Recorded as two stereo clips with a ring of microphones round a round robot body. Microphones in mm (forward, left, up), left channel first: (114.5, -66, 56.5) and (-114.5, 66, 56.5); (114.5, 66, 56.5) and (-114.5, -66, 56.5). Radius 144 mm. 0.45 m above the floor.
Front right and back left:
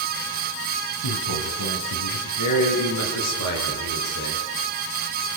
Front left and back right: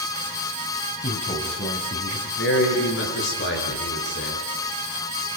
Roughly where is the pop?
No pop in this recording.